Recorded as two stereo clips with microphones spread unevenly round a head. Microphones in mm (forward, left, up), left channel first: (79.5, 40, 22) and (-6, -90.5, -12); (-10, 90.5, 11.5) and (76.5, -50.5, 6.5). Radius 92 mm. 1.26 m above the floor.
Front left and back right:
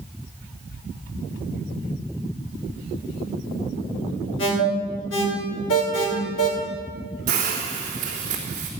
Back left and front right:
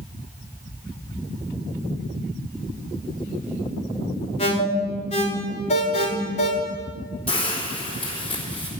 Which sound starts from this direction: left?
An alarm, at 4.4 s.